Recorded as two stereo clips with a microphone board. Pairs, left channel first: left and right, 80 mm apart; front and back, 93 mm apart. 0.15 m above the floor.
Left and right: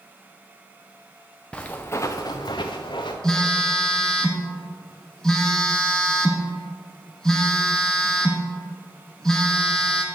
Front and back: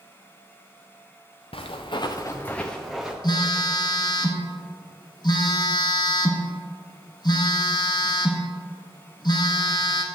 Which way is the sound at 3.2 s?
10° left.